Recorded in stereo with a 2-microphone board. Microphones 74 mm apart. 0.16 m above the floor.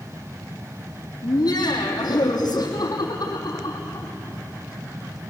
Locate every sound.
1.2 s laughter: 60° left (ahead or behind), 6 m